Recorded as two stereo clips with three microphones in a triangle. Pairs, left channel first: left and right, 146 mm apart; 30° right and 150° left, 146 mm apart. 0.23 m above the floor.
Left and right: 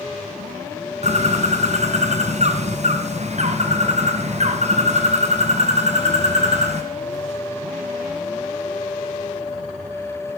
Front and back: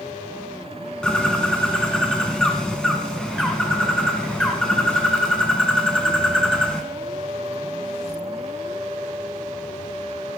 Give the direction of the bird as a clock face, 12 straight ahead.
4 o'clock.